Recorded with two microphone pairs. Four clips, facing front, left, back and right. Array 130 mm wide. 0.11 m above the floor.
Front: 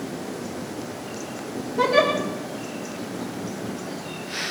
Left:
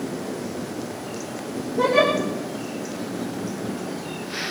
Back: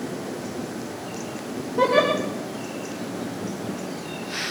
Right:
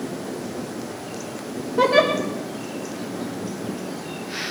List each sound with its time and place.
1.8 s a giggle: 95° right, 4 m